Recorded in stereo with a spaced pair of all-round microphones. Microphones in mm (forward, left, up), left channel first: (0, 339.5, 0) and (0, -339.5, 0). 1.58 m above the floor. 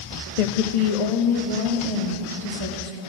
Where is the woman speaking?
75° left (ahead or behind), 0.7 m; by 3.0 s 50° left (ahead or behind), 2.5 m.